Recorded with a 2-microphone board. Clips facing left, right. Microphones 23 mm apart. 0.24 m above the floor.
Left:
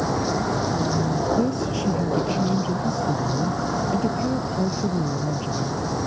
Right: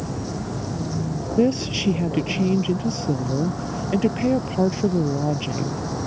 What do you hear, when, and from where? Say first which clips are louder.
0.0 s a vehicle: left 6 dB; 35° left (ahead or behind); by 6.1 s 10° left (ahead or behind)
1.4 s a woman speaking: right 3 dB; 35° right (ahead or behind)